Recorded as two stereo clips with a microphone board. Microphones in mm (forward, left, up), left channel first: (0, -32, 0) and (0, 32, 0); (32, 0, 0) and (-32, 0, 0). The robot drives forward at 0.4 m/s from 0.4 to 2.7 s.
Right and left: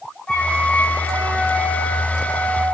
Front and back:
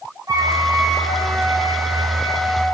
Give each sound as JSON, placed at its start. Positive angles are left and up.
{"t": 0.3, "sound": "a flute", "azimuth_deg": -165, "distance_m": 2.5}